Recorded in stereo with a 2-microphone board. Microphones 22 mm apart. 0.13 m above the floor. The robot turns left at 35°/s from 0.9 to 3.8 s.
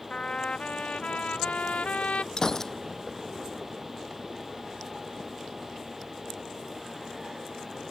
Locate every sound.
0.1 s a trumpet: 120° left; by 2.3 s 70° left
2.4 s a gunshot: 35° left (ahead or behind); by 2.7 s 20° left (ahead or behind)